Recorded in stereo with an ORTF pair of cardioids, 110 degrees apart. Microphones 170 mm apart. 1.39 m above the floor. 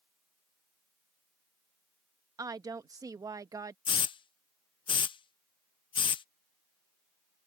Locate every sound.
2.4 s a woman speaking: 20° right
3.9 s a hiss: 30° left